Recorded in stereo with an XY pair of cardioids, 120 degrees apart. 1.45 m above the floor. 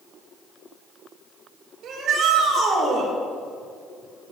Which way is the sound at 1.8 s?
60° right.